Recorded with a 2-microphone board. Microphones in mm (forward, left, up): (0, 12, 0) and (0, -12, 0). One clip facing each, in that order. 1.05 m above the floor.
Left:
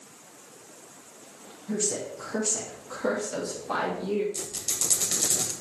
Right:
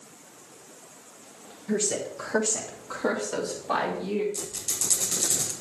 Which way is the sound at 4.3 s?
30° left (ahead or behind).